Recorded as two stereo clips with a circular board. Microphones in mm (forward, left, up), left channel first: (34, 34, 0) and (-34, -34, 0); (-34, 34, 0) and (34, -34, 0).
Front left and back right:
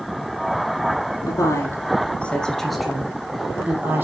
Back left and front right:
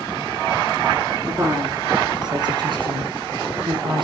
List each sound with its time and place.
1.3 s a woman speaking: 5° left, 2 m; by 4.0 s 70° right, 3 m